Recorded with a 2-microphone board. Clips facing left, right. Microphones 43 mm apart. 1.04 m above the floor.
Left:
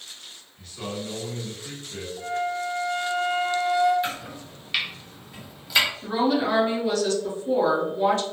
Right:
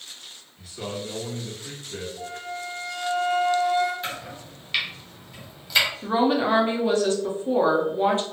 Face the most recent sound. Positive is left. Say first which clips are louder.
# right 2 dB
turn(degrees=-25)  # may be behind; listen again after turning